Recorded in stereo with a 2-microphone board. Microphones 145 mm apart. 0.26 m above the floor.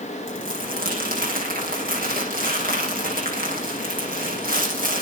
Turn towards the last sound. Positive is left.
turn(degrees=-80)